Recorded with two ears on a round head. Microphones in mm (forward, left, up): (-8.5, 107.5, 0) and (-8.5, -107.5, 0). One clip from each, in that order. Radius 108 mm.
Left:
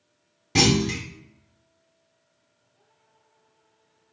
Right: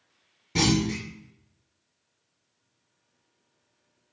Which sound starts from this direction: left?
A clunk, at 0.6 s.